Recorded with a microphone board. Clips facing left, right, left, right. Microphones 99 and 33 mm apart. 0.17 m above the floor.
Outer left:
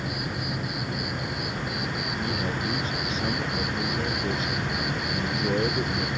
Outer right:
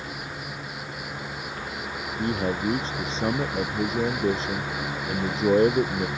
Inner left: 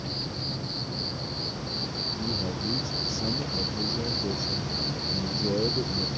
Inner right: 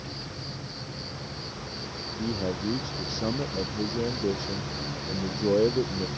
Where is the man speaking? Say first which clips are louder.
Outer right 6 dB, inner right 5 dB; 30° right (ahead or behind).